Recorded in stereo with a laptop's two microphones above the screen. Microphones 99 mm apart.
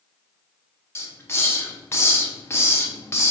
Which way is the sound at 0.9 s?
25° left (ahead or behind).